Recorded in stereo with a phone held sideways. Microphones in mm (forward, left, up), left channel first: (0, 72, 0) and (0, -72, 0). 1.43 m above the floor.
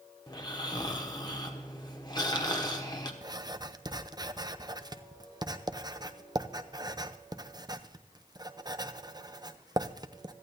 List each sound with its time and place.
0.3 s snoring: 30° left (ahead or behind), 1.3 m
3.2 s writing: 30° right (ahead or behind), 0.5 m